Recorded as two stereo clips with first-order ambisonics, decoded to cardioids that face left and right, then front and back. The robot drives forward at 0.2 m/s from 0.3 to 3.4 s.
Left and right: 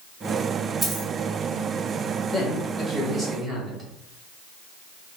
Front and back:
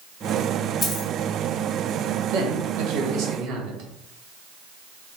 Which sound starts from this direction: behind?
A man speaking, at 2.3 s.